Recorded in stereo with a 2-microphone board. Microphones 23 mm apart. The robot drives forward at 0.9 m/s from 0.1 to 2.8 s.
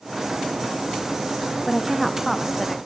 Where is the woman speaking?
5° left (ahead or behind), 0.6 m.